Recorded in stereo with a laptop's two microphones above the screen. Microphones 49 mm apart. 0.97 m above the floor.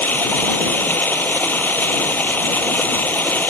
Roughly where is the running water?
Left.